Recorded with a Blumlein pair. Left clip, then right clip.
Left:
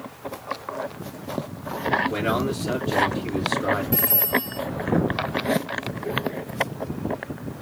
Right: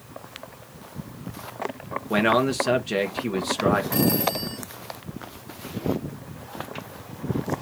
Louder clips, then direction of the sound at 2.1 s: Right 4 dB; 60° right.